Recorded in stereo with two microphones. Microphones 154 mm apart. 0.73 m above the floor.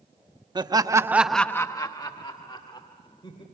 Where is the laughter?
30° right (ahead or behind), 1.2 m; by 3.4 s 35° left (ahead or behind), 3 m.